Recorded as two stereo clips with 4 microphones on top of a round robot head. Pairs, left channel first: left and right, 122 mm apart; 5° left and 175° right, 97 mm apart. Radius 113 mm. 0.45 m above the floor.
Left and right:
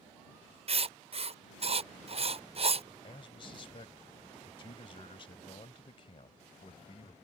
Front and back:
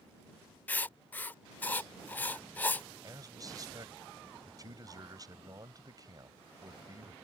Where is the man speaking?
135° left.